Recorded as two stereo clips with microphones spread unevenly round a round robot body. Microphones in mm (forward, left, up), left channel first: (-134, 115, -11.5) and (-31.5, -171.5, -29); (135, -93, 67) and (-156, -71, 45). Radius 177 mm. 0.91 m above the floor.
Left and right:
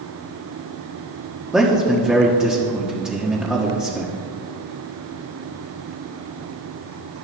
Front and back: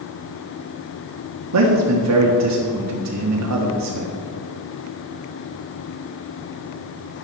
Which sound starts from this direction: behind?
A man speaking, at 1.5 s.